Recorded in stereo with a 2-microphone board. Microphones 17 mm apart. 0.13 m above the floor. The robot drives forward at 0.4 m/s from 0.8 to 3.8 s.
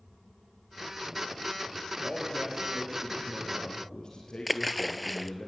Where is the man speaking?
40° left (ahead or behind), 3.5 m; by 5.5 s 50° left (ahead or behind), 3 m.